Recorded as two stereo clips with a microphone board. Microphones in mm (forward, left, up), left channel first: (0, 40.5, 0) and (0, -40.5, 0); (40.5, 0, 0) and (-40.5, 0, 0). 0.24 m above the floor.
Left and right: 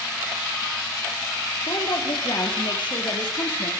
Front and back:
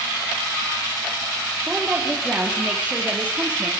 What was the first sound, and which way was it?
A woman speaking, 105° left.